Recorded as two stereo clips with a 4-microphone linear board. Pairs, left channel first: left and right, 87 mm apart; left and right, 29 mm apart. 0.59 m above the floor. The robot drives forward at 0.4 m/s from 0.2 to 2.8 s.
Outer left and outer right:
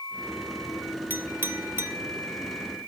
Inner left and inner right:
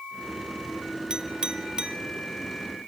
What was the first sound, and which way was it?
A clink, 25° right (ahead or behind).